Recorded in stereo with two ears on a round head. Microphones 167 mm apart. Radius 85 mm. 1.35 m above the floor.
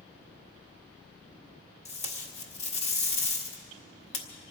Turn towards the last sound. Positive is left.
turn(degrees=35)  # may be behind; listen again after turning